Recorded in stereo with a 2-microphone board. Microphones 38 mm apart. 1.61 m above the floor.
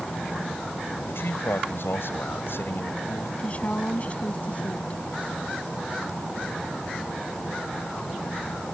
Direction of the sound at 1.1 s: 80° left.